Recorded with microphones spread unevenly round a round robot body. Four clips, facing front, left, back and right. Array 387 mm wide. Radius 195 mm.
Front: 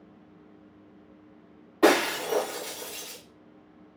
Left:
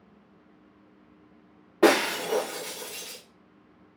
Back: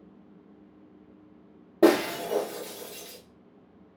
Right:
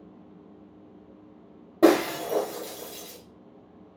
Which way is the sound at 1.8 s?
160° right.